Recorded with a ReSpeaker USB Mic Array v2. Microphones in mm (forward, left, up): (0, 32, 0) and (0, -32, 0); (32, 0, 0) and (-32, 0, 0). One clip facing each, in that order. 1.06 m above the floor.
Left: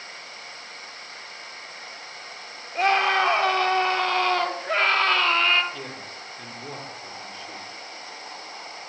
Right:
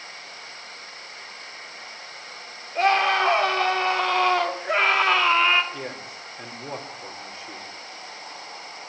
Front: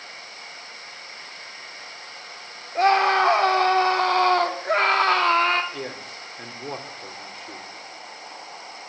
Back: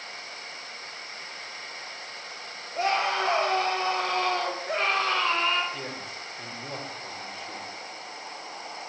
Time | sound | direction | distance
2.8 | a scream | 5° left | 4 m
5.7 | a man speaking | 20° right | 4 m